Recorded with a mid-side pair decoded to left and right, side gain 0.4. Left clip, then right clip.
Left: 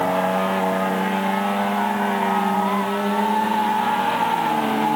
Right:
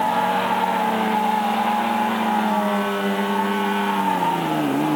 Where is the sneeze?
I don't hear a sneeze.